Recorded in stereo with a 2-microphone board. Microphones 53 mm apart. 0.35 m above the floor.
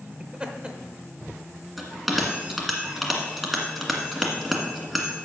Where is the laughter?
20° right (ahead or behind), 0.9 m.